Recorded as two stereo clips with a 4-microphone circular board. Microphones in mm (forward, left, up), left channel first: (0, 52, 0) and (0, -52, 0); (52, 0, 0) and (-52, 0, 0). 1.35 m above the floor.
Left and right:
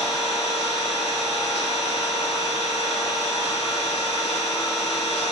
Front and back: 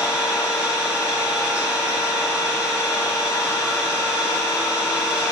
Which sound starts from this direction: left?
An engine running, at 0.0 s.